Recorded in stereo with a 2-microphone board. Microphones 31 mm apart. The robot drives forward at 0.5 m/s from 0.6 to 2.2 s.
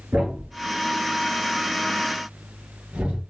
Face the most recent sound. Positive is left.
turn(degrees=-60)  # may be behind; listen again after turning